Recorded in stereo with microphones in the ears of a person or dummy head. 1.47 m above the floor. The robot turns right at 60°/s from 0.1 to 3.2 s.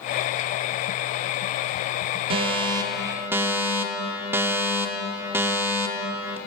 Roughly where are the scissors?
I don't hear scissors.